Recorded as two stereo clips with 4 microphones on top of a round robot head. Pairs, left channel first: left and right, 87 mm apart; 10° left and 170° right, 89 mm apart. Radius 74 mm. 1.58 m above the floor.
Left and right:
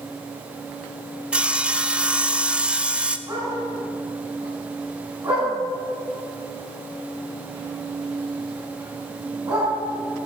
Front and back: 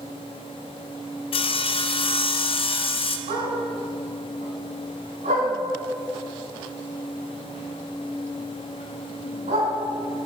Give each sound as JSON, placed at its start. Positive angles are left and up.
{"t": 1.3, "sound": "sawing", "azimuth_deg": -10, "distance_m": 0.9}
{"t": 3.3, "sound": "a dog barking", "azimuth_deg": -160, "distance_m": 6.0}